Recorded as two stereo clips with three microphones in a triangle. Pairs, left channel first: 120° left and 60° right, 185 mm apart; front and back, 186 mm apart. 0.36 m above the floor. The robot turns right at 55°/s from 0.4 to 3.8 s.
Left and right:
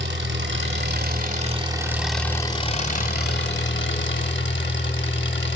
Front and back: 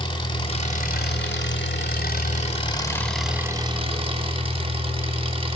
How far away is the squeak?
No squeak in this recording.